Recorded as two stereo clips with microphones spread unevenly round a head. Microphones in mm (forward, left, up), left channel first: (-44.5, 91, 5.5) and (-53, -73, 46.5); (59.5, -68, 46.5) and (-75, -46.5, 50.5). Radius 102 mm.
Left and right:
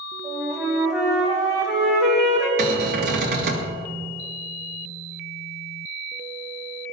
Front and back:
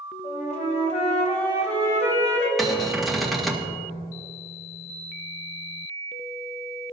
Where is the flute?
25° right, 1.7 m.